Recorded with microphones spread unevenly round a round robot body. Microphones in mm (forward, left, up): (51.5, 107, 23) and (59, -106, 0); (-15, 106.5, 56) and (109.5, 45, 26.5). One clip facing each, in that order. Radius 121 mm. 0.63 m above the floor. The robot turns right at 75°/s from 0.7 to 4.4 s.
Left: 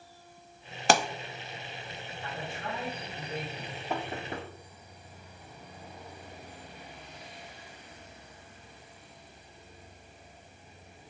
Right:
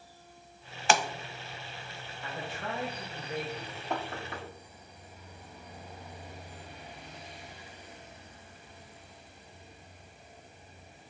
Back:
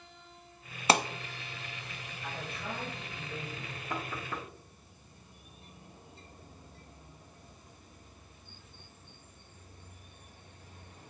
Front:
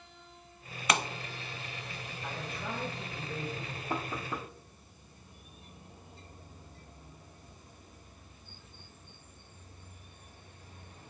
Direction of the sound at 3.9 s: Straight ahead.